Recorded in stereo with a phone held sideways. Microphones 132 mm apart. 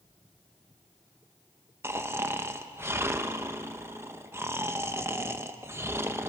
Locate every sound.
1.8 s snoring: 20° right (ahead or behind), 1.0 m